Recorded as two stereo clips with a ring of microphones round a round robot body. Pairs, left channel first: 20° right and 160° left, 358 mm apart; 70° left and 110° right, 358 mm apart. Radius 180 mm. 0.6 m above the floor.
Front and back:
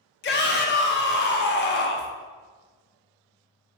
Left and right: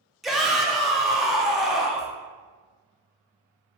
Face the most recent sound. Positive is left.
turn(degrees=-25)